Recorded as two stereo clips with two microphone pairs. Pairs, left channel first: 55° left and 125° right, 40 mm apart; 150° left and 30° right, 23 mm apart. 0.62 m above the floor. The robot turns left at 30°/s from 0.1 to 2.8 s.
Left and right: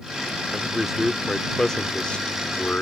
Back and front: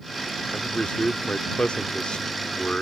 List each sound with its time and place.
0.5 s a man speaking: 170° left; by 2.8 s 100° left